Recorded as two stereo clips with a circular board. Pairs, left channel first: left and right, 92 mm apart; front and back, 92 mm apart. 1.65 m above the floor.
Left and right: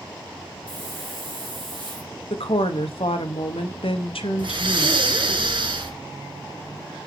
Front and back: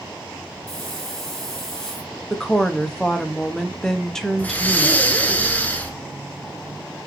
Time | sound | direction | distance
0.7 | a hiss | 85° right | 2.5 m
2.3 | a woman speaking | 85° left | 1.1 m
4.4 | breathing | 70° right | 1.1 m